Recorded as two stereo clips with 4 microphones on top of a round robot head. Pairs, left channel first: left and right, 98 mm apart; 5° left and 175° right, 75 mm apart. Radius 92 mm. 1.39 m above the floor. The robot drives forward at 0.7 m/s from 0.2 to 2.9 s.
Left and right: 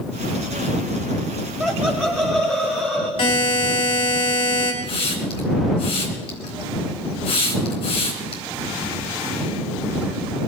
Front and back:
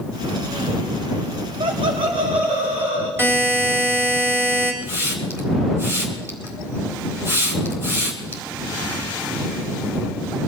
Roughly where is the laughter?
Behind.